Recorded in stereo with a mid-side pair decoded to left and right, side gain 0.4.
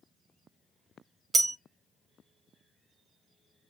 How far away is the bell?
About 0.8 m.